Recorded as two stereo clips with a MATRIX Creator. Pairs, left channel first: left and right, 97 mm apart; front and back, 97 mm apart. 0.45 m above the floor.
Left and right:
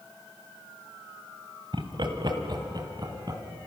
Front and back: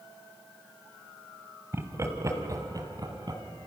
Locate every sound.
1.7 s laughter: 120° right, 2.5 m; by 3.4 s 135° right, 3.5 m